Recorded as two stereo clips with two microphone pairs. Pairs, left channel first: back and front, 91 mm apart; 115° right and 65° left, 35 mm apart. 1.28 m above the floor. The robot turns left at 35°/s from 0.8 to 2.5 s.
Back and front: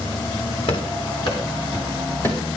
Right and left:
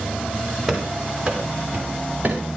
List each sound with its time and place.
0.7 s running footsteps: 155° left, 6.5 m; by 2.4 s 110° left, 6.5 m